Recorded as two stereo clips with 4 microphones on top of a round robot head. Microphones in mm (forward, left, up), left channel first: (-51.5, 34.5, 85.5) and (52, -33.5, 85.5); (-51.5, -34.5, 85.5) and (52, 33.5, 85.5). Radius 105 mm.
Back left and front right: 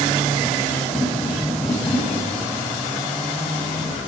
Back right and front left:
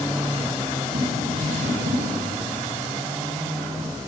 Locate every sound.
0.9 s tapping: 65° left, 8.5 m